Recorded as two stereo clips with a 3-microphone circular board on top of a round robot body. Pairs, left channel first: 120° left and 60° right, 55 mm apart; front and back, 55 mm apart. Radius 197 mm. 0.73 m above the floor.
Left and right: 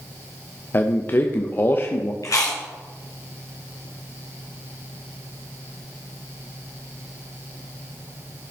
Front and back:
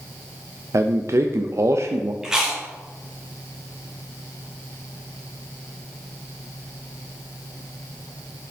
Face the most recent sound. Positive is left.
turn(degrees=100)